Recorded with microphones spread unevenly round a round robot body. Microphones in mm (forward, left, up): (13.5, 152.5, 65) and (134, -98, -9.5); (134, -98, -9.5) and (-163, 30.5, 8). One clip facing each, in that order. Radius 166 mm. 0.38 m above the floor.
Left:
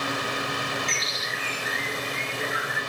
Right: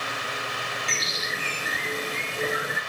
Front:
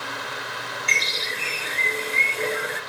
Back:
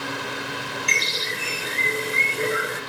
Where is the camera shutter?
I don't hear a camera shutter.